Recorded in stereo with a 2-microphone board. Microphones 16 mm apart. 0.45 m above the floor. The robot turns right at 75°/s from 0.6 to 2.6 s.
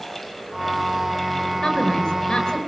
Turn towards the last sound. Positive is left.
turn(degrees=140)